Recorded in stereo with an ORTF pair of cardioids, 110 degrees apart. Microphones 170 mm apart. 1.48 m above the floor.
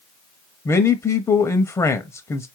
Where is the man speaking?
15° left, 0.5 m.